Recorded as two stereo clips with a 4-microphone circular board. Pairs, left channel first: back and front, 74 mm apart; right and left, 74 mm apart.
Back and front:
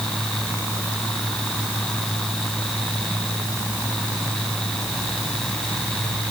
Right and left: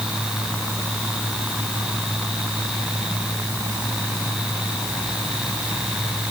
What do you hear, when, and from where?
Only background noise.